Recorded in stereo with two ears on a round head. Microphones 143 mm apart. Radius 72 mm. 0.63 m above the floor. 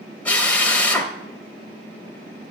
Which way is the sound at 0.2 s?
10° left (ahead or behind).